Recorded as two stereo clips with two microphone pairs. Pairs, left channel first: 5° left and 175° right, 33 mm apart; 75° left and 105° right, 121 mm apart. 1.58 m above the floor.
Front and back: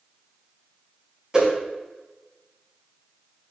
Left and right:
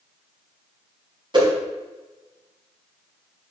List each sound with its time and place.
1.3 s a whoosh: 120° right, 1.6 m